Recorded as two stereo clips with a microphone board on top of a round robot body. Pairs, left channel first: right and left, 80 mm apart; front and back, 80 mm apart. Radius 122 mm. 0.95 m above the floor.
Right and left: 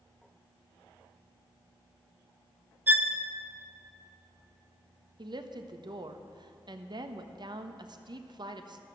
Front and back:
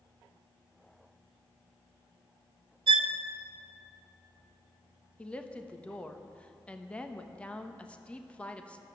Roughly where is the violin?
Behind.